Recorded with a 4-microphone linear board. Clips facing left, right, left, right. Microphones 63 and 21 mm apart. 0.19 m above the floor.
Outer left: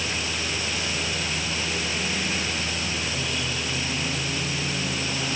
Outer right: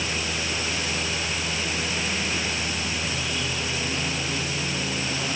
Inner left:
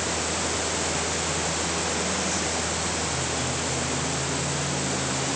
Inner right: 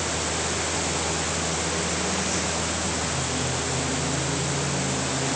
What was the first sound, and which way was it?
Only background noise.